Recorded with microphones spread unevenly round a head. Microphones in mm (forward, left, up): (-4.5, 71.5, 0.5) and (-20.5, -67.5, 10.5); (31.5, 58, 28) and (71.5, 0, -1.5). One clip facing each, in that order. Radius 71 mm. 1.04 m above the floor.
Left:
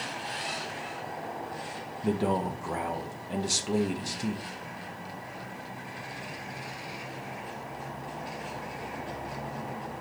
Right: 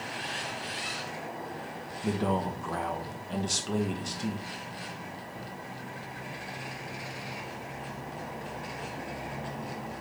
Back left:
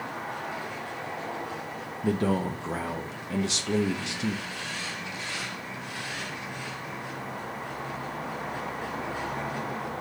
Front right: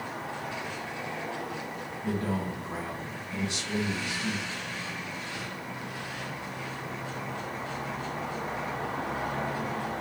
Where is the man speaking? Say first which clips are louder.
Left 2 dB, back left 5 dB; 160° left, 0.8 m.